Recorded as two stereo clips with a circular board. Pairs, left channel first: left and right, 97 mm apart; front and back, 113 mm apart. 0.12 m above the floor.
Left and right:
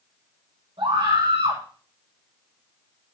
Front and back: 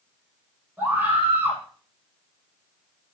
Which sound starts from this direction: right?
A scream, at 0.8 s.